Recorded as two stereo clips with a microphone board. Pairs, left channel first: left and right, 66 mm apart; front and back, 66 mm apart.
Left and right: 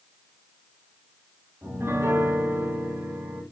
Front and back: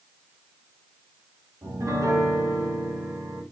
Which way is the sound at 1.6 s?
140° right.